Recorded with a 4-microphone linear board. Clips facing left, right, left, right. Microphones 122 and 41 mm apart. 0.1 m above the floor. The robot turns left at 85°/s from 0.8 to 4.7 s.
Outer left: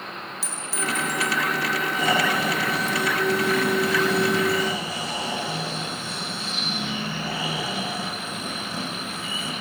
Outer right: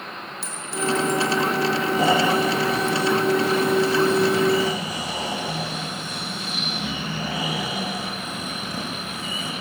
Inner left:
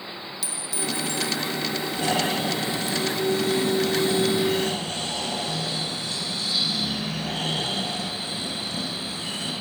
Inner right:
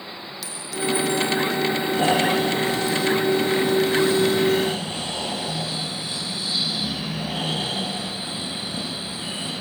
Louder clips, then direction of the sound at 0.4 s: Outer right 5 dB, inner right 5 dB; 5° left.